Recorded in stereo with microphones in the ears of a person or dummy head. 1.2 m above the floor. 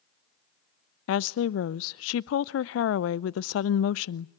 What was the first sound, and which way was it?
A woman speaking, 75° left (ahead or behind).